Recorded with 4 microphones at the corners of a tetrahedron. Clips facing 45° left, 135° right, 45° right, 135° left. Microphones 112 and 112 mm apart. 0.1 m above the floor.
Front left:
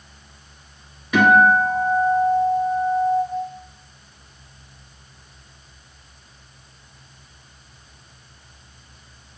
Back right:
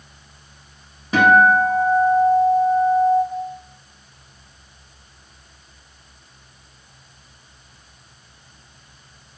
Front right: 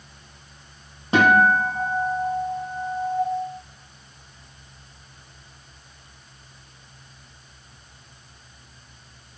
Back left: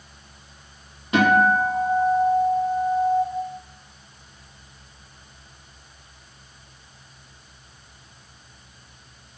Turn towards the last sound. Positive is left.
turn(degrees=-90)